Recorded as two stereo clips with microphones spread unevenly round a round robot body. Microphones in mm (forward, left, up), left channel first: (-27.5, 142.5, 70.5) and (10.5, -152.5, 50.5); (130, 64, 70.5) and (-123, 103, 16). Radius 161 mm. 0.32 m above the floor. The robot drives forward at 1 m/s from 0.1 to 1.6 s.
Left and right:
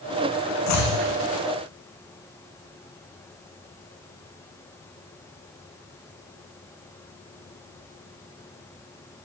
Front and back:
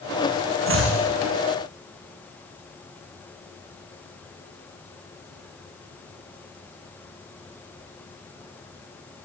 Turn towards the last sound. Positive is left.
turn(degrees=140)